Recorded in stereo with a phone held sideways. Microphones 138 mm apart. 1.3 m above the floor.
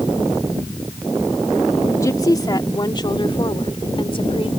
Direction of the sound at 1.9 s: 25° left (ahead or behind).